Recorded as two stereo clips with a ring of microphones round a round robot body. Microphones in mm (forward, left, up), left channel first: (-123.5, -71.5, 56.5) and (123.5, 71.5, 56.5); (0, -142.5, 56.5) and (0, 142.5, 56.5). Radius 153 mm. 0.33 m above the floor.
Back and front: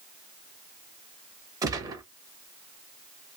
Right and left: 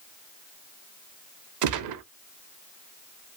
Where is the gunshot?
105° left, 0.6 m.